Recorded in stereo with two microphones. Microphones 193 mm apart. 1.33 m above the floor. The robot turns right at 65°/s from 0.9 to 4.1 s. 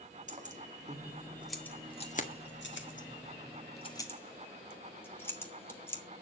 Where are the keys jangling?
40° right (ahead or behind), 1.9 m; by 6.0 s 10° left (ahead or behind), 1.9 m.